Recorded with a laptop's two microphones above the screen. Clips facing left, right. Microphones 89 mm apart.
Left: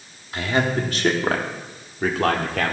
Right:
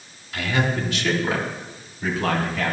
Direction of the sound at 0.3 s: 30° left (ahead or behind).